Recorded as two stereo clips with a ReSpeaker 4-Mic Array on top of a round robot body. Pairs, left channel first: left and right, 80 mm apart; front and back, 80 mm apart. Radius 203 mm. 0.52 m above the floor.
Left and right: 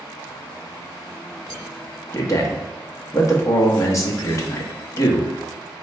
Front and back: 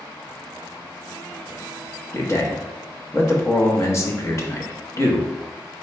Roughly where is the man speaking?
Ahead left.